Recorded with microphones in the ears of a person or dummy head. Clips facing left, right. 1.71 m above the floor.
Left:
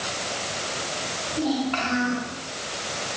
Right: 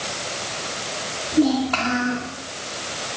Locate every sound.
1.3 s a child speaking: 60° right (ahead or behind), 4 m